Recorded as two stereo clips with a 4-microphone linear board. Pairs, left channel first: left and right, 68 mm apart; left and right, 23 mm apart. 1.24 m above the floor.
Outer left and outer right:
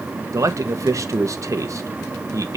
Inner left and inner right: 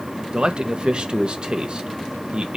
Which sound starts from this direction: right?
A man speaking, at 0.3 s.